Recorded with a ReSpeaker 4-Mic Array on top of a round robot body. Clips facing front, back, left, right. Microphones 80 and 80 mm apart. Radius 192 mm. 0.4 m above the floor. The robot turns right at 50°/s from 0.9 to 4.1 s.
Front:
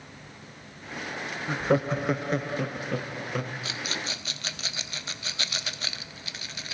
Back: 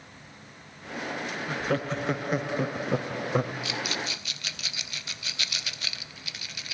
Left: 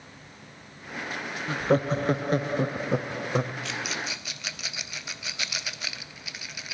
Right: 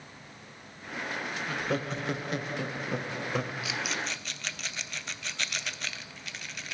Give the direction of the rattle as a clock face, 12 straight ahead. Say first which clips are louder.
Back 2 dB, left 1 dB; 12 o'clock.